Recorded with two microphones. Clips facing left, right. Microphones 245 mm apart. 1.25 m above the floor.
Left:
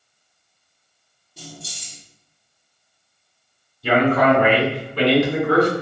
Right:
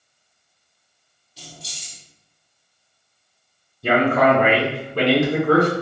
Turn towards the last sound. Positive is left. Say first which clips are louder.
# left 1 dB
turn(degrees=-50)  # may be behind; listen again after turning